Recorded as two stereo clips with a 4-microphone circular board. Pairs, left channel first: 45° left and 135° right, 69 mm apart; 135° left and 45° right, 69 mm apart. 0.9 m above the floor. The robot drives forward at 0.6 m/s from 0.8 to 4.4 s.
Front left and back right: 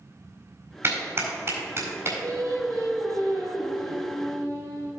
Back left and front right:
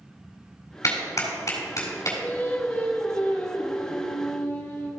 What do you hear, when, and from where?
0.8 s a clap: 170° left, 4 m; by 2.1 s 175° left, 5 m
2.2 s singing: 160° right, 1.8 m; by 4.9 s 170° right, 3 m